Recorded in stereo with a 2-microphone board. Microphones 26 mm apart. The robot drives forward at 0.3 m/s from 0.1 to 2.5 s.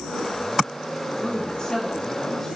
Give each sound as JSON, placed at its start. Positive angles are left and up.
{"t": 1.2, "sound": "a woman speaking", "side_deg": 30, "distance_m": 1.6}